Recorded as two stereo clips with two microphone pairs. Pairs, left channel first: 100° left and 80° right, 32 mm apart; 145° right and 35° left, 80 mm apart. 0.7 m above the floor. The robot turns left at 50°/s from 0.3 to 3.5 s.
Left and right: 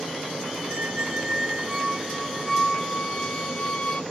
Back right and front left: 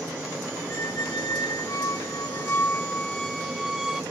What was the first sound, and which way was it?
A squeak, 100° right.